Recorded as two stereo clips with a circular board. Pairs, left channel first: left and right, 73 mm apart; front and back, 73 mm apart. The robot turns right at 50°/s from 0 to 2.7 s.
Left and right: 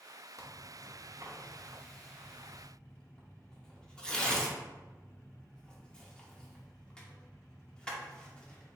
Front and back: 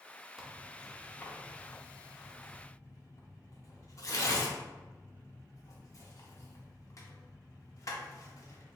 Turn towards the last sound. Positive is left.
turn(degrees=20)